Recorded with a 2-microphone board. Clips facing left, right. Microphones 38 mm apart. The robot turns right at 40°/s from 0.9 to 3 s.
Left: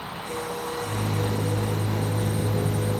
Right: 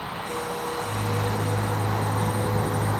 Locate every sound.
0.0 s a vehicle: 10° right (ahead or behind); by 3.0 s 85° right